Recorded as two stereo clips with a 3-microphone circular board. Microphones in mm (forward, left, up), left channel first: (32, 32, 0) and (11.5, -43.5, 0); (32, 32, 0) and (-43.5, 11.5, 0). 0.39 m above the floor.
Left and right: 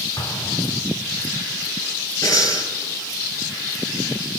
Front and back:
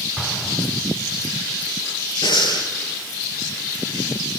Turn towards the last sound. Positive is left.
turn(degrees=35)